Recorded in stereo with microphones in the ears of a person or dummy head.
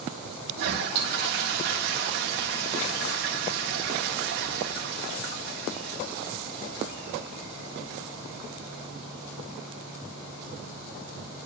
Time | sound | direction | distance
0.6 | a toilet flushing | 55° right (ahead or behind) | 1.5 m